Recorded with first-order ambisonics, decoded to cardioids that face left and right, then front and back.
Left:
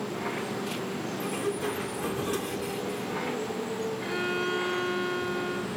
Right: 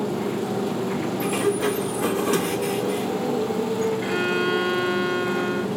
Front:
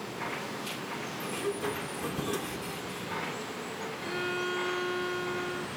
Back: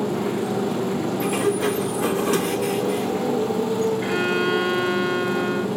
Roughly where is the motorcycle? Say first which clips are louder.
Right 6 dB, back 11 dB; behind right.